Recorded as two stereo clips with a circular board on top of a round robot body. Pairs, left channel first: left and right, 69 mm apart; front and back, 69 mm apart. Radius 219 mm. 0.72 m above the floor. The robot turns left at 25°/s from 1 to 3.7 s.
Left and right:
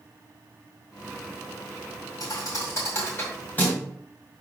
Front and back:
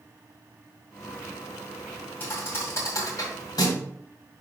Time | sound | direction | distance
2.2 | a thud | 60° left | 1.9 m